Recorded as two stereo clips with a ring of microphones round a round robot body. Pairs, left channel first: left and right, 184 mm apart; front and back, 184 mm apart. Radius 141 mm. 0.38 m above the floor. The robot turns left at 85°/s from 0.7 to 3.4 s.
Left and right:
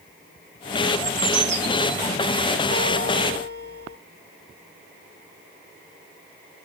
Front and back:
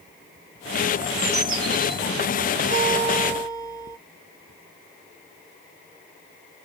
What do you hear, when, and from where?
1.0 s a bird: 95° right, 2 m; by 2.0 s 175° left, 2 m
2.7 s a guitar: 130° left, 6 m; by 4.0 s 70° left, 6 m